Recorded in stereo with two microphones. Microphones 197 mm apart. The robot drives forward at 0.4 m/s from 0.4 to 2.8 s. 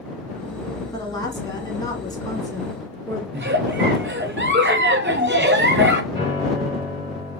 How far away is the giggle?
About 0.6 m.